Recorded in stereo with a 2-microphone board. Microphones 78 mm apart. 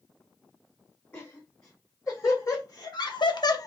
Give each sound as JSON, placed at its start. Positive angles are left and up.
{"t": 1.1, "sound": "laughter", "side_deg": 30, "distance_m": 2.0}